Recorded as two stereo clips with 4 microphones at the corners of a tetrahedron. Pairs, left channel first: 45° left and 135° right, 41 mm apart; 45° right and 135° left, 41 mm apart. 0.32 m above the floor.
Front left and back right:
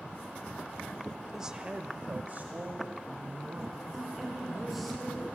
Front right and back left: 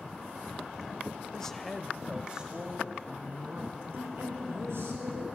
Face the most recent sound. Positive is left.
turn(degrees=135)